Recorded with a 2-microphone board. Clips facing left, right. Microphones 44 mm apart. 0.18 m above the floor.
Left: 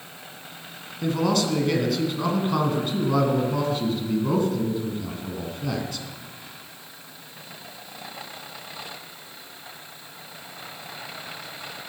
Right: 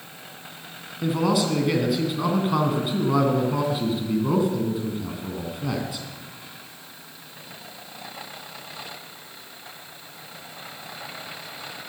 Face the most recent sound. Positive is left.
turn(degrees=-10)  # may be behind; listen again after turning